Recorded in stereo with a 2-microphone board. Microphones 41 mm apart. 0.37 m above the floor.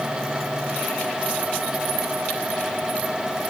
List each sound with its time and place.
Only background noise.